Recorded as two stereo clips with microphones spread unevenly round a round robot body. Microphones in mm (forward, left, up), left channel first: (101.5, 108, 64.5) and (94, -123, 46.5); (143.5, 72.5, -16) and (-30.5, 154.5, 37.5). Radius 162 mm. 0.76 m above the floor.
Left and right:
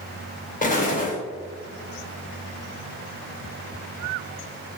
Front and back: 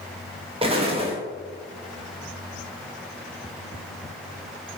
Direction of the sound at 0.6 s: 95° left.